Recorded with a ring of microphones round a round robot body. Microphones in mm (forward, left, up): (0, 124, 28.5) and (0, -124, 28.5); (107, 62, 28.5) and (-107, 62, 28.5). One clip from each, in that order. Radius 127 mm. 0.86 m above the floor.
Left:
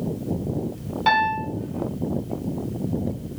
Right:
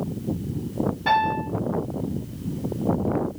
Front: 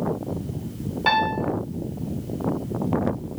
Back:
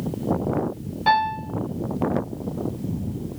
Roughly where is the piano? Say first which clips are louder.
Left 2 dB, back 1 dB; ahead left.